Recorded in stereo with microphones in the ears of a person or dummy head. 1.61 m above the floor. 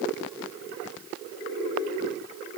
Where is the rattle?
I don't hear a rattle.